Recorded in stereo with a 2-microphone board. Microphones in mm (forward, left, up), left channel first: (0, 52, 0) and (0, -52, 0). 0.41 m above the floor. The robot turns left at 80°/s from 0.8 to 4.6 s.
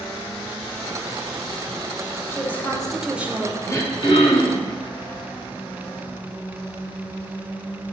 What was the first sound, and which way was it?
A woman speaking, 50° left.